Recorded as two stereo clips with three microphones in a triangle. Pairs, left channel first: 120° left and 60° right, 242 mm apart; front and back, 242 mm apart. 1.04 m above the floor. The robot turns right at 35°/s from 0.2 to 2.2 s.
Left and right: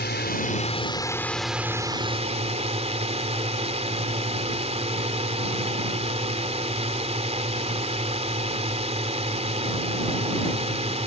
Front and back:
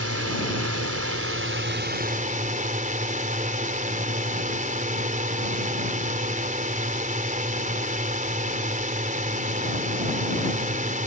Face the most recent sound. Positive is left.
turn(degrees=-125)